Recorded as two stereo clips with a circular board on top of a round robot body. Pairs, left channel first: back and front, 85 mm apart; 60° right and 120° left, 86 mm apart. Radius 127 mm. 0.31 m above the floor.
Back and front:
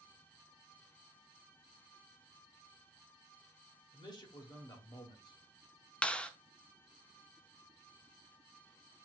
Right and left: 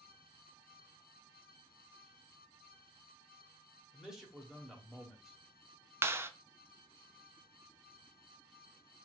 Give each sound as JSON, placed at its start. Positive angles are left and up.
{"t": 3.9, "sound": "a man speaking", "azimuth_deg": -155, "distance_m": 1.7}
{"t": 6.0, "sound": "a clap", "azimuth_deg": 115, "distance_m": 0.7}